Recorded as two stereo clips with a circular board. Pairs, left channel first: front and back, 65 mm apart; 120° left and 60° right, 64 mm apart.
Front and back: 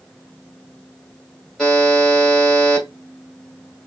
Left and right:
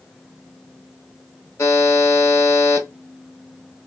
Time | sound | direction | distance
1.6 | a buzzer | 85° left | 2.5 m